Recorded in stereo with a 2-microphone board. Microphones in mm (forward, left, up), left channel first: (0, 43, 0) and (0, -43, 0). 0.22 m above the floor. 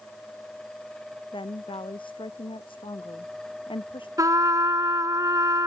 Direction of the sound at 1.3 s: 85° left.